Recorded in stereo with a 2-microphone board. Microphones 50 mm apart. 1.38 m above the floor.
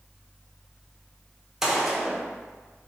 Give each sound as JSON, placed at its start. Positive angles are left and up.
{"t": 1.6, "sound": "a gunshot", "side_deg": -10, "distance_m": 0.6}